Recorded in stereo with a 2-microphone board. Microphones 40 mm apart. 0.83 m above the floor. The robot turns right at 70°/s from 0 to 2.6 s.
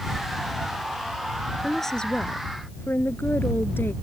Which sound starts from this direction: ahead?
A woman speaking, at 1.6 s.